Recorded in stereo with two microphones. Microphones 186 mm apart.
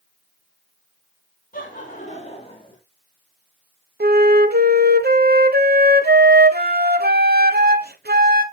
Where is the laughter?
45° left (ahead or behind), 3 m; by 2.8 s 25° left (ahead or behind), 3.5 m.